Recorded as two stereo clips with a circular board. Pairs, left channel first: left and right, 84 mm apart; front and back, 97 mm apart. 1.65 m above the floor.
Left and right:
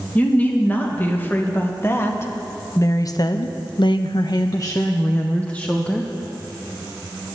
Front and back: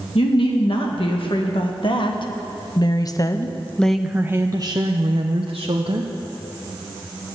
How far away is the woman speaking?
About 2 m.